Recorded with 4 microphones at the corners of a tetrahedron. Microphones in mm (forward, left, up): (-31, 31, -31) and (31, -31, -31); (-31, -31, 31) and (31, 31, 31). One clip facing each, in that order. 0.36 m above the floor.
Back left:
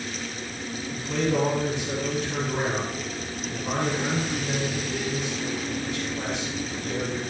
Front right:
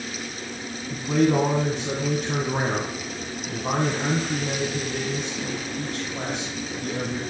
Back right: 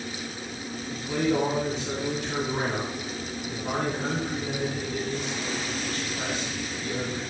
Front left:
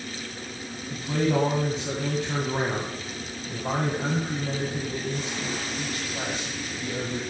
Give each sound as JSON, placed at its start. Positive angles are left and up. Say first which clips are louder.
{"t": 0.9, "sound": "a man speaking", "louder": "front right 5 dB, front left 1 dB", "azimuth_deg": -5, "distance_m": 2.0}